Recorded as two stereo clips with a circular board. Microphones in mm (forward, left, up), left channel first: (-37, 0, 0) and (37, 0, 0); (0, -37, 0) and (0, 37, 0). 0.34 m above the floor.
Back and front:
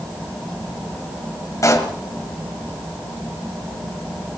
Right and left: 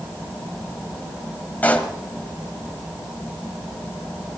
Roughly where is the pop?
Behind right.